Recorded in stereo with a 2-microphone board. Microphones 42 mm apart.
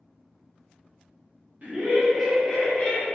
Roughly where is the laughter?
Right.